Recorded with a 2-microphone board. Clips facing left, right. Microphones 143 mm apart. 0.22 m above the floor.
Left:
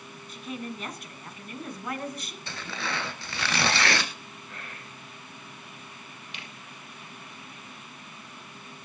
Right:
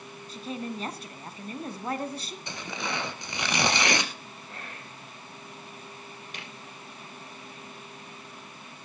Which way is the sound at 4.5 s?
30° right (ahead or behind).